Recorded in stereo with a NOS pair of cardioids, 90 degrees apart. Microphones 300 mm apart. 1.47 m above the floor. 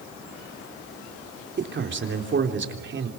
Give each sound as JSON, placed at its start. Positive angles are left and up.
{"t": 1.6, "sound": "a man speaking", "azimuth_deg": -40, "distance_m": 3.5}